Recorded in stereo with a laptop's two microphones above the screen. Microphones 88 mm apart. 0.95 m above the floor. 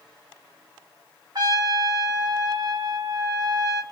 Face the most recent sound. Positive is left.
turn(degrees=-50)  # may be behind; listen again after turning